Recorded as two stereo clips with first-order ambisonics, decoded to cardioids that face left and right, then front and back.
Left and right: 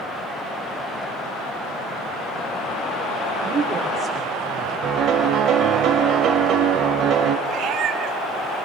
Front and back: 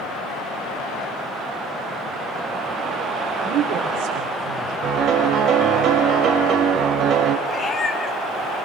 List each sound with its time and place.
3.4 s a man speaking: 150° right, 4 m; by 4.7 s 175° right, 4.5 m
4.8 s a piano: 135° right, 2.0 m
7.5 s a cat meowing: 65° right, 1.7 m